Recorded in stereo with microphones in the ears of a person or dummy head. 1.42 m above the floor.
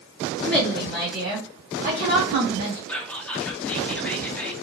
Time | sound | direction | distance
0.4 | a woman speaking | 10° left (ahead or behind) | 1.1 m
2.9 | whispering | 5° left (ahead or behind) | 0.5 m